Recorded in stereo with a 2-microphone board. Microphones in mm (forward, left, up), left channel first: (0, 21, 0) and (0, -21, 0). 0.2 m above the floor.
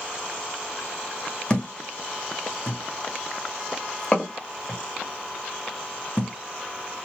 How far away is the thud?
About 1.7 m.